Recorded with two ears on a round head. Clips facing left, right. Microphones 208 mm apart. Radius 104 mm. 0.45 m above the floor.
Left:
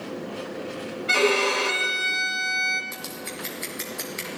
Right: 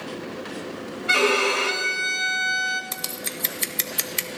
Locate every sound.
1.1 s a violin: 5° right (ahead or behind), 1.0 m
2.9 s scissors: 45° right (ahead or behind), 0.9 m